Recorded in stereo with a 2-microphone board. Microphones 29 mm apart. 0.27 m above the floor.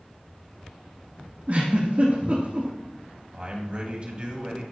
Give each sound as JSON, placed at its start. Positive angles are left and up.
{"t": 1.5, "sound": "a giggle", "side_deg": -45, "distance_m": 3.0}
{"t": 3.3, "sound": "a man speaking", "side_deg": -40, "distance_m": 2.0}